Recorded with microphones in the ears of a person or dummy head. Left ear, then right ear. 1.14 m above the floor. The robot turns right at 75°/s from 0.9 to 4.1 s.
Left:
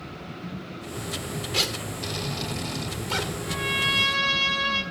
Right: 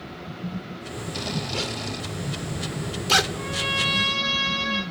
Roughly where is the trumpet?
Ahead right.